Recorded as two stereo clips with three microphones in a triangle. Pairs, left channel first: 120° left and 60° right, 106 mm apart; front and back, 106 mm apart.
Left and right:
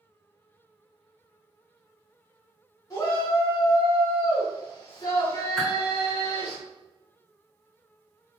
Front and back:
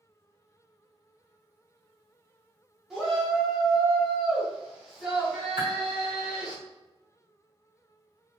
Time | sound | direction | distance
2.9 | a shout | 95° left | 1.4 m
5.6 | a whoosh | 150° right | 1.2 m